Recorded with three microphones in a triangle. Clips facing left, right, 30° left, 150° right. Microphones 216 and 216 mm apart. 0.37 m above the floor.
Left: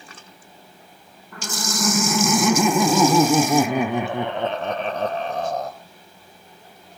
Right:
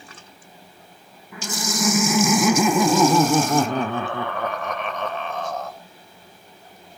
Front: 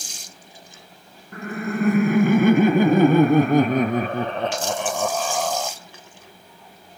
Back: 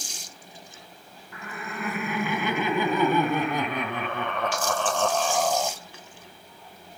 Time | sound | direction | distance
1.3 | laughter | 10° right | 4.5 m